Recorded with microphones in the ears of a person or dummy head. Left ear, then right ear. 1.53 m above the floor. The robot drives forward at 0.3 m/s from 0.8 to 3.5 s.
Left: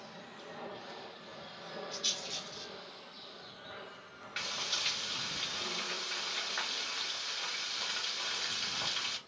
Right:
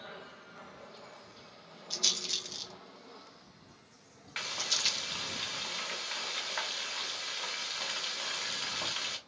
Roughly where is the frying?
Centre.